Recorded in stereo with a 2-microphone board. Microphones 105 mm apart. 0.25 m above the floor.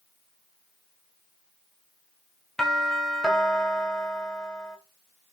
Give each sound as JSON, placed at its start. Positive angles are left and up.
{"t": 2.6, "sound": "a doorbell", "side_deg": 5, "distance_m": 1.9}